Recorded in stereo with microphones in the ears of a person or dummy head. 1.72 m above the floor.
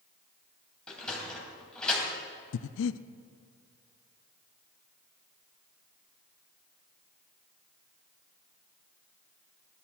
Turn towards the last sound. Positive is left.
turn(degrees=80)